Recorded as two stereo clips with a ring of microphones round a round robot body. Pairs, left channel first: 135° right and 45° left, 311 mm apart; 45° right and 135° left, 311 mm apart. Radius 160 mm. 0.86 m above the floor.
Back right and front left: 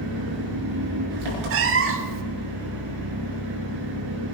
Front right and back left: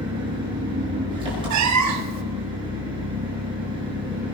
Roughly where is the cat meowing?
Left.